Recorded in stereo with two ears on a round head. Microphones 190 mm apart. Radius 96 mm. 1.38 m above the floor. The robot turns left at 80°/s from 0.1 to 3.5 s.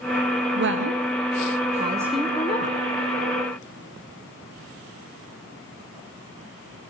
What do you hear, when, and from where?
0.6 s a woman speaking: 50° right (ahead or behind), 0.9 m; by 2.8 s 45° left (ahead or behind), 0.9 m